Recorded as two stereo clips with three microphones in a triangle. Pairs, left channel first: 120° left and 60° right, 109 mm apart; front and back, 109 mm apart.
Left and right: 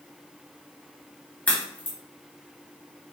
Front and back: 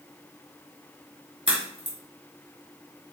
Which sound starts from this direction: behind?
A crack, at 1.5 s.